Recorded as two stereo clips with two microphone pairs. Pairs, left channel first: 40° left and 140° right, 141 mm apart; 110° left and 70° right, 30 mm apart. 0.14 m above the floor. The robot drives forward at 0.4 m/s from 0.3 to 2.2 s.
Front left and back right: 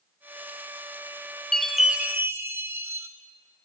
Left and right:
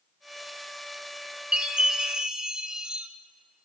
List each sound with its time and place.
1.5 s a chime: 40° right, 0.6 m; by 3.1 s 85° right, 0.5 m